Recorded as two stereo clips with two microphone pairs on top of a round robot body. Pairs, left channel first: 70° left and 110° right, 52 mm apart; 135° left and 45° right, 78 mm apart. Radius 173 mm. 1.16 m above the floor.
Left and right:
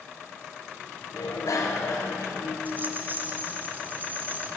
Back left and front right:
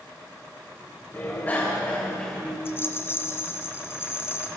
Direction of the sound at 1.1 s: 70° left.